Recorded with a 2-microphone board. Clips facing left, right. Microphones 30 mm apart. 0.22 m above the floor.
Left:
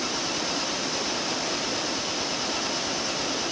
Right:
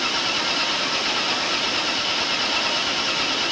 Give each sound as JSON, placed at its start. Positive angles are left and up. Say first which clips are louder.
{"t": 0.0, "sound": "an engine running", "louder": "right 6 dB", "side_deg": -50}